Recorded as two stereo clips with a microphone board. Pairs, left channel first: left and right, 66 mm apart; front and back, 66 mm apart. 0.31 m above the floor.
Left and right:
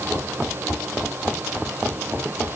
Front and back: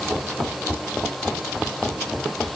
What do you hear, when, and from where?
Only background noise.